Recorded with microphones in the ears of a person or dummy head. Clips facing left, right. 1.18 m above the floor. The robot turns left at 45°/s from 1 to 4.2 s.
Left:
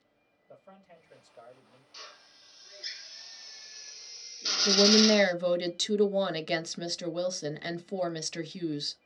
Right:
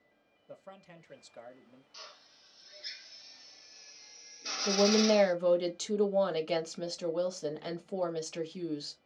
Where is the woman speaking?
35° left (ahead or behind), 1.1 m.